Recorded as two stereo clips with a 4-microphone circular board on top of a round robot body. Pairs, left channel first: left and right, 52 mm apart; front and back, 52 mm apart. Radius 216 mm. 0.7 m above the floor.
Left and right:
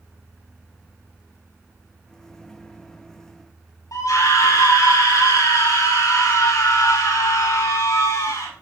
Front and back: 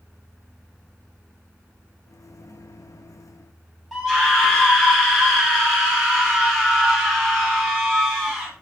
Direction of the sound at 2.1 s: 10° left.